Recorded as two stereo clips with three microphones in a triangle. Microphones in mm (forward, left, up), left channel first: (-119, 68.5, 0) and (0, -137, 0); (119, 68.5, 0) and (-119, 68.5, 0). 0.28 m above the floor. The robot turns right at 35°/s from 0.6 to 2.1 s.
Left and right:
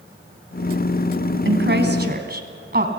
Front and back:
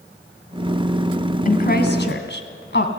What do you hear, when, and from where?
1.4 s a woman speaking: 45° right, 2.5 m; by 2.9 s 25° right, 2.5 m